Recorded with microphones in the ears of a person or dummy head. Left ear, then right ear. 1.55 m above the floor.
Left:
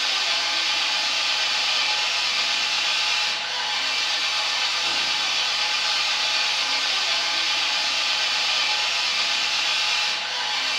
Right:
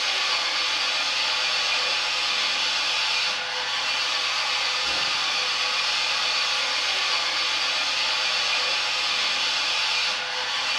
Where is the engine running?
50° left (ahead or behind), 1.3 m.